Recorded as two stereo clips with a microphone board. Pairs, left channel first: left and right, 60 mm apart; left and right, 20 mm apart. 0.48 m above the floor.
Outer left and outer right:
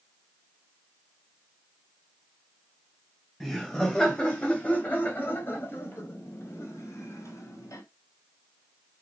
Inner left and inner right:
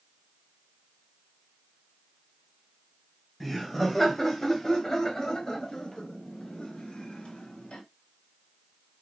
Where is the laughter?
10° left (ahead or behind), 2.5 m; by 7.8 s 60° left (ahead or behind), 3.5 m.